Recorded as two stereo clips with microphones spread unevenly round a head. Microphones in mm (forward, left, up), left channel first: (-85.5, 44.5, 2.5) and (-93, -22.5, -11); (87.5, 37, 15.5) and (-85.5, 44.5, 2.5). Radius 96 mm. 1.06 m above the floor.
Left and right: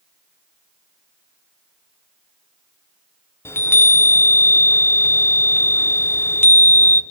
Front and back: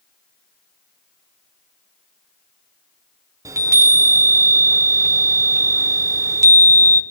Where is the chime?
105° left, 0.9 m.